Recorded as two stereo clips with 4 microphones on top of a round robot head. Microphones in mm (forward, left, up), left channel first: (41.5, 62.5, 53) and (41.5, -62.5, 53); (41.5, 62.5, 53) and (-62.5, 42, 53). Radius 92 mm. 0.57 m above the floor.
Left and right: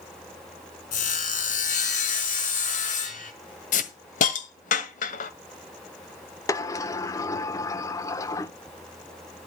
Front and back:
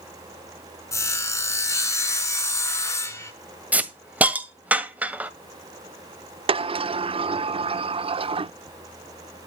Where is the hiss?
115° left, 1.8 m.